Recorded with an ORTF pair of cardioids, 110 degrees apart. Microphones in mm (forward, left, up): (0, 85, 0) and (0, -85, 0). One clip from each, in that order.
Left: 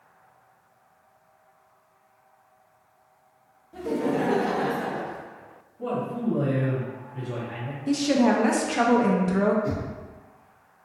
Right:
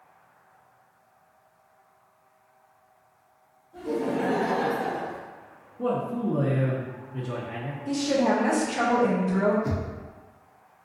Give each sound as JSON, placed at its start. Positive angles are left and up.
{"t": 3.7, "sound": "laughter", "azimuth_deg": 40, "distance_m": 1.1}
{"t": 5.8, "sound": "a man speaking", "azimuth_deg": -45, "distance_m": 0.9}
{"t": 7.9, "sound": "a woman speaking", "azimuth_deg": 20, "distance_m": 0.6}
{"t": 9.6, "sound": "knocking", "azimuth_deg": -25, "distance_m": 0.7}